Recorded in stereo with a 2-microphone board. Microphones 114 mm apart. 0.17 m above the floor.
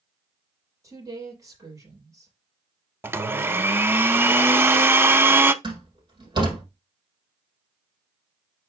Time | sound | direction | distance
0.8 | a woman speaking | 30° right (ahead or behind) | 4.5 m
3.0 | a blender | 20° right (ahead or behind) | 0.5 m
5.6 | a door slam | 45° right (ahead or behind) | 4.5 m